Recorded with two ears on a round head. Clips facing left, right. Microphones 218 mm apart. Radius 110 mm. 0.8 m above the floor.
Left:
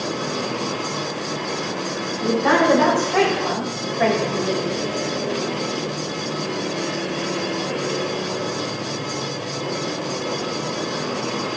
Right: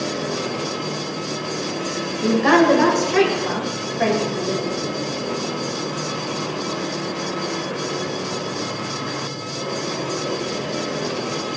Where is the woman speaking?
65° right (ahead or behind), 2.5 m; by 4.6 s 10° left (ahead or behind), 2.5 m.